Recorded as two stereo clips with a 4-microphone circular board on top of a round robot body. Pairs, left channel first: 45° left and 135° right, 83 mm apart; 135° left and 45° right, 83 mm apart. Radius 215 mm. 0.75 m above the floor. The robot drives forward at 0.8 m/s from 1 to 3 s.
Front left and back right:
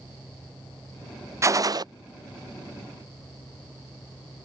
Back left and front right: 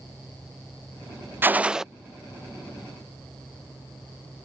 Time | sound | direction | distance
1.4 | a gunshot | 100° right | ?